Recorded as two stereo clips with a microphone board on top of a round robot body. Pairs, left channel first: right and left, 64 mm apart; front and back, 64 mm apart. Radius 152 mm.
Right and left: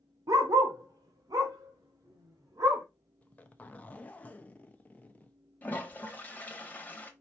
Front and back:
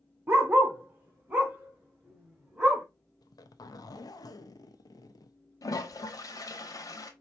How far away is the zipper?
About 0.6 m.